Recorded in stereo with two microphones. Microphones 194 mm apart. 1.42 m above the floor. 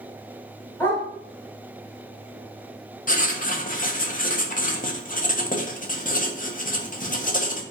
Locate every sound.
0.8 s a dog barking: 10° left (ahead or behind), 1.8 m
3.1 s writing: 45° left (ahead or behind), 0.5 m